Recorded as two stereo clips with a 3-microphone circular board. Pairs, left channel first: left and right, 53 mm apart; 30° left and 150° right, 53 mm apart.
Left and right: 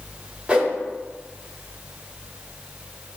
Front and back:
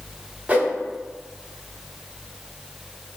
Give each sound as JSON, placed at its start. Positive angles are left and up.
{"t": 0.5, "sound": "a whoosh", "azimuth_deg": -130, "distance_m": 0.6}